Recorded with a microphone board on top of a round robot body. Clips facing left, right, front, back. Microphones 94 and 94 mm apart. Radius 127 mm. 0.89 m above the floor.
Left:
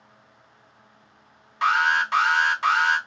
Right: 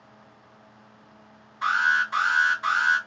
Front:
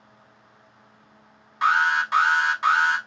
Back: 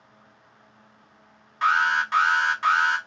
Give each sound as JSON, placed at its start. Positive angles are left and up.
{"t": 1.6, "sound": "an alarm", "azimuth_deg": 80, "distance_m": 1.4}